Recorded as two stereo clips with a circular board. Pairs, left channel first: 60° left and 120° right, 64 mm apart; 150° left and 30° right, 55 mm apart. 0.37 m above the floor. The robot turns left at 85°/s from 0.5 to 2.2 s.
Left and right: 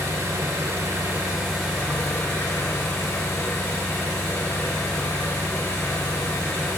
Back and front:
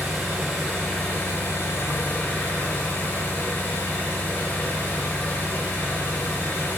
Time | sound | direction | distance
0.0 | an engine running | 115° right | 0.8 m